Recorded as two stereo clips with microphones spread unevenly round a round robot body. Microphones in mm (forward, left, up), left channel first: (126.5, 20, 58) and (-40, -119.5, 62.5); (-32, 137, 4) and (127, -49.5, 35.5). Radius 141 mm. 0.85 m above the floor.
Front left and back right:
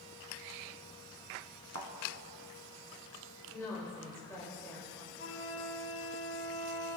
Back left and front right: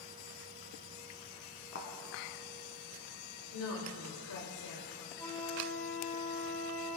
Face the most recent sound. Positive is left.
turn(degrees=55)